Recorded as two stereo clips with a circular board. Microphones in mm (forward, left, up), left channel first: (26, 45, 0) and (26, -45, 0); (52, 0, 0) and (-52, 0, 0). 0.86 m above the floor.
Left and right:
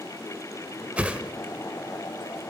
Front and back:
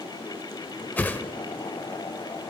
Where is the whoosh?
40° right, 0.6 m.